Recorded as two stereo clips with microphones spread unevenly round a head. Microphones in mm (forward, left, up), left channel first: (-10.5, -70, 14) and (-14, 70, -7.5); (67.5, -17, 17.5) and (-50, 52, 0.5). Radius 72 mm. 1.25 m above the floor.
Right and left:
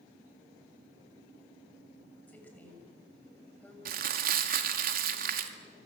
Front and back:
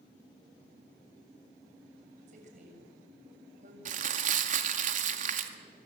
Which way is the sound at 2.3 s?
165° right.